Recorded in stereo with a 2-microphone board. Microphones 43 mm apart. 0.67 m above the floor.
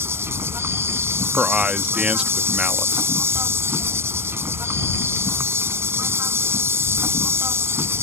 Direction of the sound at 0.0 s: 70° right (ahead or behind).